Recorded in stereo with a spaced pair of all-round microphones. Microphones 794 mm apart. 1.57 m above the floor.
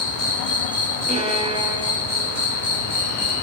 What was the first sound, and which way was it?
An insect, 65° left (ahead or behind).